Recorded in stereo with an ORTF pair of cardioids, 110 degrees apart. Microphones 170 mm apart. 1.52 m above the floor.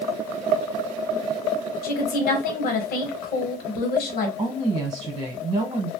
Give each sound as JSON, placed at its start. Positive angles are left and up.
{"t": 1.8, "sound": "a woman speaking", "azimuth_deg": 65, "distance_m": 1.0}
{"t": 4.4, "sound": "a woman speaking", "azimuth_deg": -40, "distance_m": 1.0}